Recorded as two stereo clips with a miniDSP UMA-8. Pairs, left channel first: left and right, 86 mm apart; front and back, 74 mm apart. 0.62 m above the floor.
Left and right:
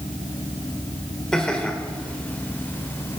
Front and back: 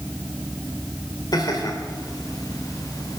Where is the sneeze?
I don't hear a sneeze.